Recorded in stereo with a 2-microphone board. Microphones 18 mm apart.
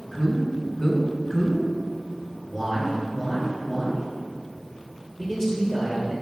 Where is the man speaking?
25° left (ahead or behind), 1.1 m.